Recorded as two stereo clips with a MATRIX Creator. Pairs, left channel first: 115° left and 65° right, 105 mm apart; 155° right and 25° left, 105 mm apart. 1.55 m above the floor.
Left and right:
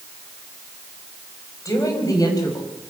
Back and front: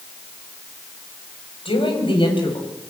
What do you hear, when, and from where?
1.6 s a woman speaking: 170° left, 7 m; by 2.7 s 165° left, 7.5 m